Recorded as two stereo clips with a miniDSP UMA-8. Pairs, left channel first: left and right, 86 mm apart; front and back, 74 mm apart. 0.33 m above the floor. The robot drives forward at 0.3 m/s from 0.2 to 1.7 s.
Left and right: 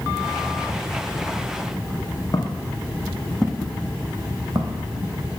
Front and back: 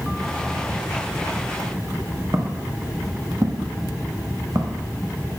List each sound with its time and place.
2.3 s footsteps: 135° left, 1.2 m; by 4.8 s 130° right, 1.5 m